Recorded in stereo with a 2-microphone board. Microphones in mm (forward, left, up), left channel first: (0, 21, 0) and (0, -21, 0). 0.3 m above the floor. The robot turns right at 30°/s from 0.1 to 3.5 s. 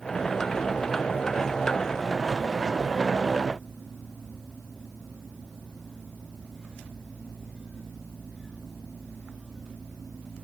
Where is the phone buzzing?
No phone buzzing in this recording.